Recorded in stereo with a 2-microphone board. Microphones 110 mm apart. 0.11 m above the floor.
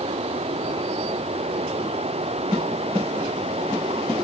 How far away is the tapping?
I don't hear tapping.